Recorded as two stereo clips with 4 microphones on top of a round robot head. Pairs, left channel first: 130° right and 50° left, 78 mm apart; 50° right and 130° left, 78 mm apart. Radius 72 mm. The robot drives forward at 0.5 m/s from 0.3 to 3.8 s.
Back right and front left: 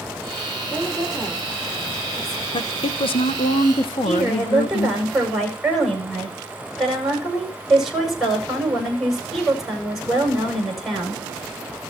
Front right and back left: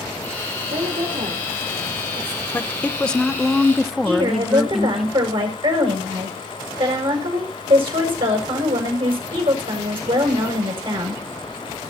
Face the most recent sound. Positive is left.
turn(degrees=135)